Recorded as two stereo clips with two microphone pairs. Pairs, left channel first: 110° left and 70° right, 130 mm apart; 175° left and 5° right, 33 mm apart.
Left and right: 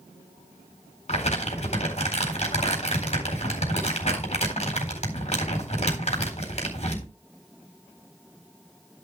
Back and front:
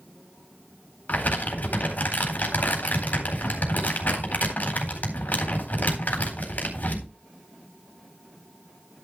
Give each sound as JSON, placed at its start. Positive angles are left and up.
{"t": 1.1, "sound": "crumpling", "azimuth_deg": 145, "distance_m": 4.0}